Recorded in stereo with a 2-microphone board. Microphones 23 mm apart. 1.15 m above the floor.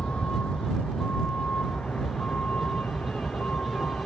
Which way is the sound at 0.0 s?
70° left (ahead or behind).